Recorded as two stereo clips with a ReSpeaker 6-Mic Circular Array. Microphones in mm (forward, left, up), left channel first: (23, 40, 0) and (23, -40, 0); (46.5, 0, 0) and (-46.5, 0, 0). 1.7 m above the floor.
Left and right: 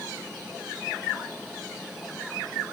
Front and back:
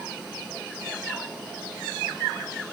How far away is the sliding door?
I don't hear a sliding door.